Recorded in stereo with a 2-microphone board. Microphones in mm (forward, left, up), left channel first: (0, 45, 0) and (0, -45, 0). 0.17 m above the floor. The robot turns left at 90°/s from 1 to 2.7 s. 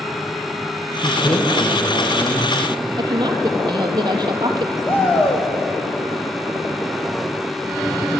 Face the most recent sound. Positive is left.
turn(degrees=20)  # may be behind; listen again after turning